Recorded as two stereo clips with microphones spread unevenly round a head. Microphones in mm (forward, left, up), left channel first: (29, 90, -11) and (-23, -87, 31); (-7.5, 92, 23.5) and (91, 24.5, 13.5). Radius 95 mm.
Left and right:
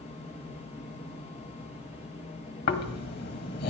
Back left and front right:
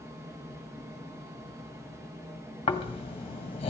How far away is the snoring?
About 1.6 m.